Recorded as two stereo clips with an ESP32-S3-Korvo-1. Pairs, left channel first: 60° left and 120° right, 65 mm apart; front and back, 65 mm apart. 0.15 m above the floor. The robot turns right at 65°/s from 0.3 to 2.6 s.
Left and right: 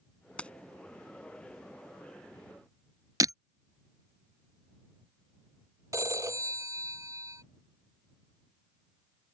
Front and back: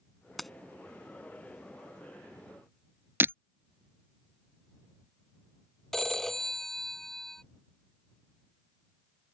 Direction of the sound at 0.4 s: 80° left.